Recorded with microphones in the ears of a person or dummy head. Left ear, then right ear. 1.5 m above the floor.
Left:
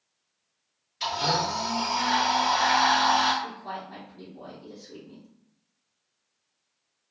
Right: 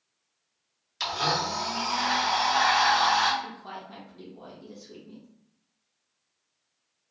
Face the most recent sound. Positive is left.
turn(degrees=-60)  # may be behind; listen again after turning